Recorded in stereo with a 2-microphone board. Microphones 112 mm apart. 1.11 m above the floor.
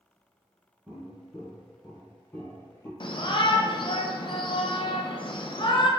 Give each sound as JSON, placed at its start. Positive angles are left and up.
{"t": 0.9, "sound": "footsteps", "side_deg": -10, "distance_m": 1.3}
{"t": 3.0, "sound": "a shout", "side_deg": 45, "distance_m": 0.6}